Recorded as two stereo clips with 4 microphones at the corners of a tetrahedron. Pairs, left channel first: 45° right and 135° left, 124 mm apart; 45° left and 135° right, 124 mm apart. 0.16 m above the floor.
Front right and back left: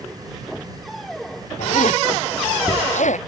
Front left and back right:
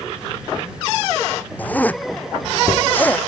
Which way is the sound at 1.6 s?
30° right.